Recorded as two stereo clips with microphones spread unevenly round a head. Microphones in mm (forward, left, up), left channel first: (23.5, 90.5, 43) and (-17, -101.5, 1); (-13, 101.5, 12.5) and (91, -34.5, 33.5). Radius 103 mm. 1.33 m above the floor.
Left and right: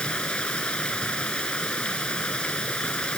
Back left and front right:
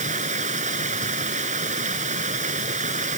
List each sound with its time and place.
0.0 s running water: 5° right